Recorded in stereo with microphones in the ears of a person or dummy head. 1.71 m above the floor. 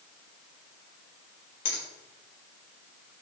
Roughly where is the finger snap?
Left.